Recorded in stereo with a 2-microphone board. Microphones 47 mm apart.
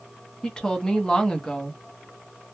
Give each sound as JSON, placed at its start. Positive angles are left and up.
{"t": 0.4, "sound": "a woman speaking", "side_deg": 20, "distance_m": 0.8}